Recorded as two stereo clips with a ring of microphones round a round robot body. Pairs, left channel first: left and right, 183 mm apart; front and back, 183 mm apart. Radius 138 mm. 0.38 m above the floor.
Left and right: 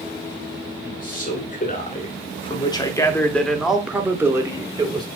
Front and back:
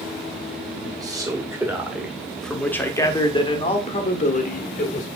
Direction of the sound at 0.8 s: 115° left.